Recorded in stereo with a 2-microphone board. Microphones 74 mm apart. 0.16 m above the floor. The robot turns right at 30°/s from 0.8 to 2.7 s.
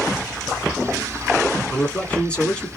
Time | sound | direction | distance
1.7 | a man speaking | 20° left (ahead or behind) | 1.1 m